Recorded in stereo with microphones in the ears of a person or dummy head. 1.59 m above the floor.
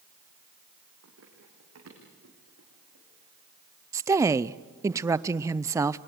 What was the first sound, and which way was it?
Running footsteps, 70° right (ahead or behind).